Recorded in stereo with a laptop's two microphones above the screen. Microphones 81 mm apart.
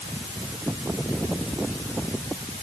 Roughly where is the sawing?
I don't hear sawing.